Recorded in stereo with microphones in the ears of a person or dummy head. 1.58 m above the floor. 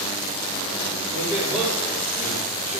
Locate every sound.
1.1 s a man speaking: 25° right (ahead or behind), 5 m